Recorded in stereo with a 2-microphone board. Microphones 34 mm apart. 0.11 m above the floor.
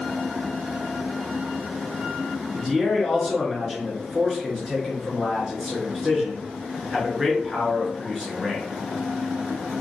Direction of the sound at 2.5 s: 5° right (ahead or behind).